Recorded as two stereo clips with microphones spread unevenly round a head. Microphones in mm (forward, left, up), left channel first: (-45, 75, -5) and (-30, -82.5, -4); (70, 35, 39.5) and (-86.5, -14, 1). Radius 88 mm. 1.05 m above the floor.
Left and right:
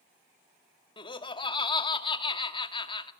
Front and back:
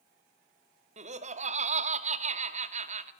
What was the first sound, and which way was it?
Laughter, 155° left.